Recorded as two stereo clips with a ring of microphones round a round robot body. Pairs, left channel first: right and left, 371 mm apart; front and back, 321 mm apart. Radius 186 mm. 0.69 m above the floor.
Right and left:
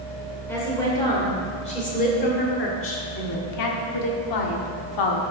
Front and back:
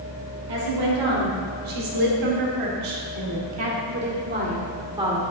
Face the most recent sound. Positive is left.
turn(degrees=-100)